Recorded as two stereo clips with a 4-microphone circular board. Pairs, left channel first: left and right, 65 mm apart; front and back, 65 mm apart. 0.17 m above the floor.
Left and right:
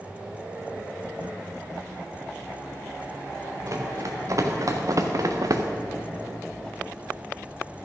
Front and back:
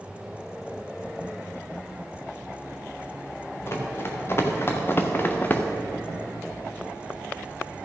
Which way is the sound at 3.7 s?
50° right.